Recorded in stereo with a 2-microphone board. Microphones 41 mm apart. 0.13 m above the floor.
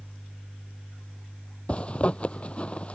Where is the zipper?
30° left (ahead or behind).